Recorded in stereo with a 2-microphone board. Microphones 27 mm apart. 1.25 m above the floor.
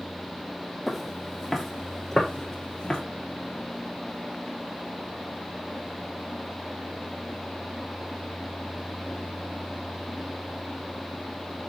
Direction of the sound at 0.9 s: Centre (ahead or behind).